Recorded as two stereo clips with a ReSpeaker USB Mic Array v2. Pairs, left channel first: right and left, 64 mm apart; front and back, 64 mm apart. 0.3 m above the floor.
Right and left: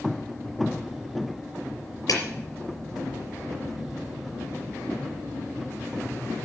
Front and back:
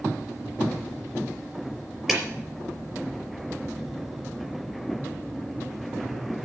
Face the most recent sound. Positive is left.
turn(degrees=-100)